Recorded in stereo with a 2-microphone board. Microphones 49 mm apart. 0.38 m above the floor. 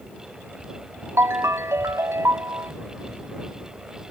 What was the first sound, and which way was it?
A ringtone, 75° right (ahead or behind).